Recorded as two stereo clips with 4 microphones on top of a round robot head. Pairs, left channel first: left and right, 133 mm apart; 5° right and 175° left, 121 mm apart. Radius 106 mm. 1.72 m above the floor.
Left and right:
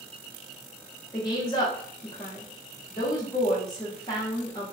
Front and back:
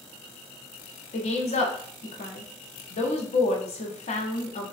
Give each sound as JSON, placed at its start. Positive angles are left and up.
{"t": 1.1, "sound": "a woman speaking", "azimuth_deg": 20, "distance_m": 0.6}